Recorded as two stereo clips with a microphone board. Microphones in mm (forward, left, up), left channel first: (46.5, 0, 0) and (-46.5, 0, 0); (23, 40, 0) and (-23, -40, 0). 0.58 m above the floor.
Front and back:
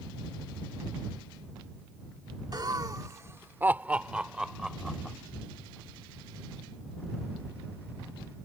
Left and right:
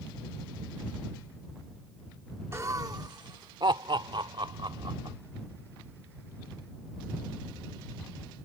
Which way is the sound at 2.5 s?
165° right.